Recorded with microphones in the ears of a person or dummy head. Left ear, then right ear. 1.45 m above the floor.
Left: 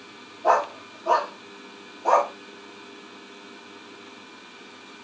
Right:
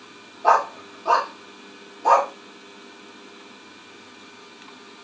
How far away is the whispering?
I don't hear whispering.